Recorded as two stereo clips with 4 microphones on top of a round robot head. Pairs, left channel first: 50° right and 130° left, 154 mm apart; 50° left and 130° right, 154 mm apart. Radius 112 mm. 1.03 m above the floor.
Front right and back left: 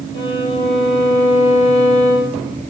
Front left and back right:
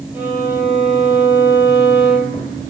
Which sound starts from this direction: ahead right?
A violin, at 0.1 s.